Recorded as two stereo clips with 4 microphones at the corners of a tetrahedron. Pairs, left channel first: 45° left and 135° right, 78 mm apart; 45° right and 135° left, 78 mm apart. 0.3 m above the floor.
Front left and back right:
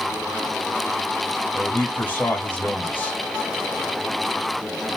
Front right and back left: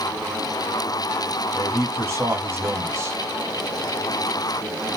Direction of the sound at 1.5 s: 100° left.